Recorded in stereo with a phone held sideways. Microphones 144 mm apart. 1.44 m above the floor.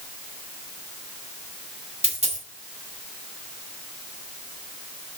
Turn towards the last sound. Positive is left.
turn(degrees=-50)  # may be behind; listen again after turning